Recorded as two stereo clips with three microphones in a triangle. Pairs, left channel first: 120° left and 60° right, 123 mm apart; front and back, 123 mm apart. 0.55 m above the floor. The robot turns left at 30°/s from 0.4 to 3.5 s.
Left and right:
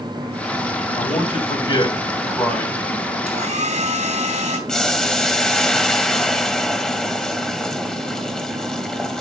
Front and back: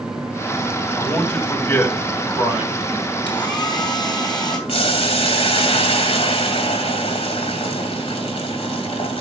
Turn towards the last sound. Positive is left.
turn(degrees=35)